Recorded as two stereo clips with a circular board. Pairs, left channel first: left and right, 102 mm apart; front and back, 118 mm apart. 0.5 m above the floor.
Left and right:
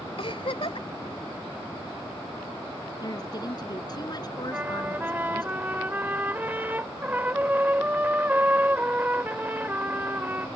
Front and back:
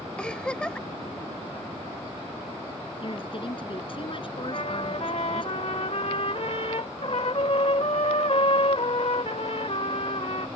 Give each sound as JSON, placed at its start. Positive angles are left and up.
{"t": 0.2, "sound": "a giggle", "azimuth_deg": 80}
{"t": 3.0, "sound": "a woman speaking", "azimuth_deg": 40}
{"t": 4.5, "sound": "a trumpet", "azimuth_deg": -20}